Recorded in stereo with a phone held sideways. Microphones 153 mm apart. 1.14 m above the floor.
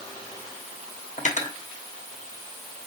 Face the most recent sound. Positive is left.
turn(degrees=50)  # may be behind; listen again after turning